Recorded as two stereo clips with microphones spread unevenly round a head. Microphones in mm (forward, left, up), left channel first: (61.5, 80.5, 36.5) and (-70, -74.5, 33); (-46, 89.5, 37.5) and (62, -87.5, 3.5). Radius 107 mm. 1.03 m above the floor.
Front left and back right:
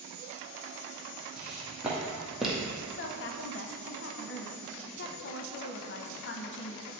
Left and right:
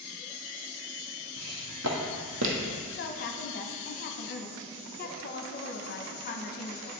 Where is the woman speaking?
75° left, 0.7 m.